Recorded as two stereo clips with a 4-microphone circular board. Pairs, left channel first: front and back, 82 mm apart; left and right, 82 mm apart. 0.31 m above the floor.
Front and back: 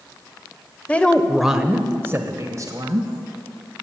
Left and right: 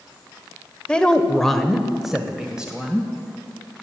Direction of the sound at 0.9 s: 35° left.